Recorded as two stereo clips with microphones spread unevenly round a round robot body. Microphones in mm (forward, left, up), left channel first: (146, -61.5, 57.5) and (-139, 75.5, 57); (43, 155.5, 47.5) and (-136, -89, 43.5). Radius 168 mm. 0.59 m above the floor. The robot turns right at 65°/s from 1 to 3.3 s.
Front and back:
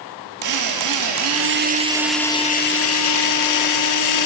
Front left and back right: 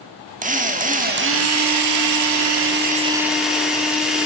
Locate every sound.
0.4 s a drill: 170° left, 1.1 m; by 4.3 s 40° right, 1.1 m